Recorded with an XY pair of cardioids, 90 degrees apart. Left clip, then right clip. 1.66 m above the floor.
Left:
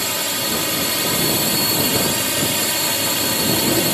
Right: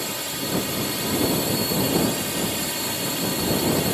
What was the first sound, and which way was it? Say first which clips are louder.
A drone: left 7 dB; 55° left.